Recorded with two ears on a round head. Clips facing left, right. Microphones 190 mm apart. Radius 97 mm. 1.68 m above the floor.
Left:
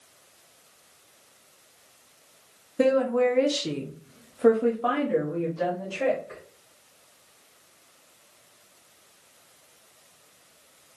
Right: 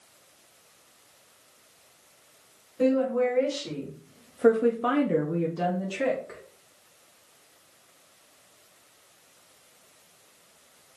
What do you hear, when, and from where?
2.8 s a woman speaking: 65° left (ahead or behind), 1.0 m; by 6.4 s 65° right (ahead or behind), 1.3 m